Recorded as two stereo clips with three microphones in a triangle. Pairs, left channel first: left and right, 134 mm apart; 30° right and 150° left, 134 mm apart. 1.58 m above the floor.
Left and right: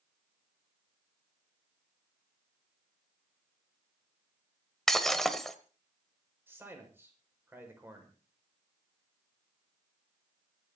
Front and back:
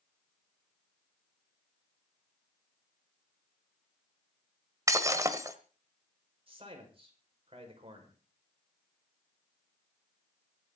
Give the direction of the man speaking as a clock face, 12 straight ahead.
5 o'clock.